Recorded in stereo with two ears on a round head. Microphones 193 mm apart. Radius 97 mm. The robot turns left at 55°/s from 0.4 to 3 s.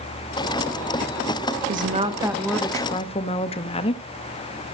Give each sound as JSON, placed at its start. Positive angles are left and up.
{"t": 1.7, "sound": "a woman speaking", "azimuth_deg": -135, "distance_m": 1.1}